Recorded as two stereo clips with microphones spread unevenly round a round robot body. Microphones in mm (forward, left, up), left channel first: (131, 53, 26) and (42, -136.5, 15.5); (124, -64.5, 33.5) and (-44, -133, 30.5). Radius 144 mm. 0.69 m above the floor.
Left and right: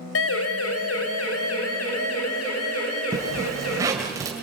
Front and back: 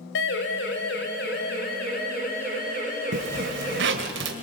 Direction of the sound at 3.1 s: 165° left.